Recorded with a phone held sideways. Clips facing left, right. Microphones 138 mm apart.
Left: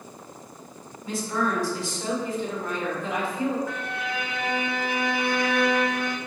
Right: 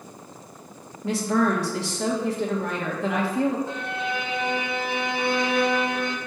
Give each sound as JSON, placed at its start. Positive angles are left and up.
{"t": 1.0, "sound": "a woman speaking", "side_deg": -75, "distance_m": 2.0}
{"t": 3.7, "sound": "a violin", "side_deg": -25, "distance_m": 0.9}